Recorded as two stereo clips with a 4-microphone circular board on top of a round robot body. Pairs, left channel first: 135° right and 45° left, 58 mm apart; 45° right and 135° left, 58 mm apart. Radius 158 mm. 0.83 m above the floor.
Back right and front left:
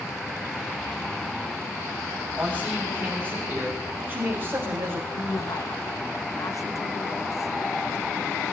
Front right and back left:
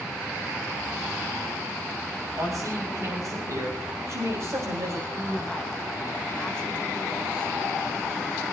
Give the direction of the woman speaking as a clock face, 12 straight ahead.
4 o'clock.